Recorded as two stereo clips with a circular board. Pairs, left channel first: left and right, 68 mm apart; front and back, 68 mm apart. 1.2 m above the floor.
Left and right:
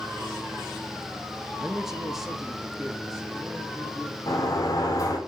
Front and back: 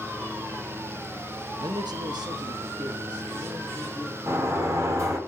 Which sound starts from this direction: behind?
A man speaking, at 1.6 s.